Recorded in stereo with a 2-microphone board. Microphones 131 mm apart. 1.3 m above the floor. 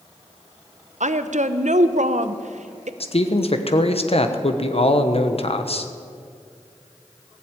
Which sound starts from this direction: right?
A woman speaking, at 1.0 s.